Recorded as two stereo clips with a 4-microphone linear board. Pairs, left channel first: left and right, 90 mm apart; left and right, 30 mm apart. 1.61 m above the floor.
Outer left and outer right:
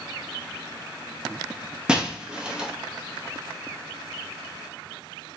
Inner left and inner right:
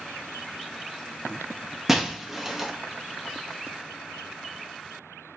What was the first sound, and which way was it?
Breaking glass, 10° right (ahead or behind).